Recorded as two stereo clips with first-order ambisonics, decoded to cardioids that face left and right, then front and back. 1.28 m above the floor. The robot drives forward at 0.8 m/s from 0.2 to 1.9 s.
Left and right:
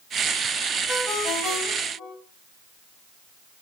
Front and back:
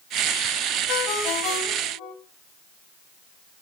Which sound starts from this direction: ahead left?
A ringtone, at 0.9 s.